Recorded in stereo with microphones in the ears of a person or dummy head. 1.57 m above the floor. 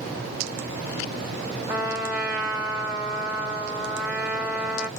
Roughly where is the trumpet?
Centre.